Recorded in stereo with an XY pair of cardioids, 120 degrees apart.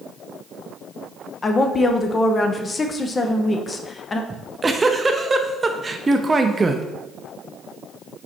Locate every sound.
1.4 s a woman speaking: 30° left, 0.7 m
4.3 s a giggle: 20° right, 0.6 m